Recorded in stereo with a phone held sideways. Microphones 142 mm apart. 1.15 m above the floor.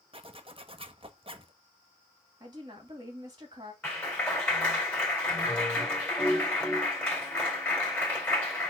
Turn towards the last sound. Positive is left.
turn(degrees=10)  # may be behind; listen again after turning